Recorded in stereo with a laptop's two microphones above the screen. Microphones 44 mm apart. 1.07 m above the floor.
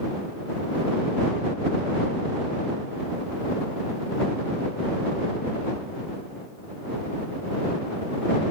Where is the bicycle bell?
No bicycle bell in this recording.